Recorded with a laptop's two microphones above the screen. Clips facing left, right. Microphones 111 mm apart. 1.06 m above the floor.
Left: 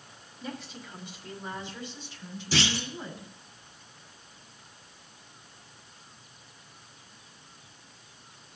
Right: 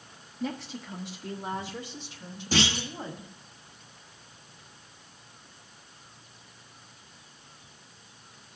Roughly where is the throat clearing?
I don't hear throat clearing.